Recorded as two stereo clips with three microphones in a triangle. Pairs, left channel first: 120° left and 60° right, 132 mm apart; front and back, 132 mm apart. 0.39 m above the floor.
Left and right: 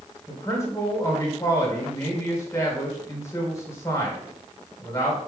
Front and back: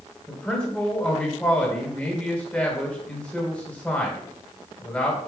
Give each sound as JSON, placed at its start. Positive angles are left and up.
{"t": 0.3, "sound": "a man speaking", "azimuth_deg": 75, "distance_m": 1.5}